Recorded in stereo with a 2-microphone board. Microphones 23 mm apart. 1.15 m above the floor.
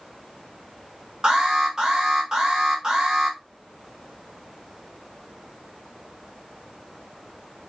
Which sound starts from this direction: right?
An alarm, at 1.2 s.